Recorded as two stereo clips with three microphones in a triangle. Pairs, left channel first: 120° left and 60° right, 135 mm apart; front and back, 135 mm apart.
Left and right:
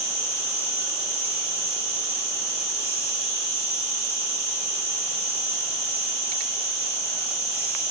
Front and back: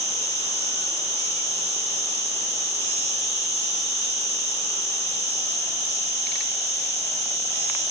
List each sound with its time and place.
0.0 s an insect: 175° right, 3 m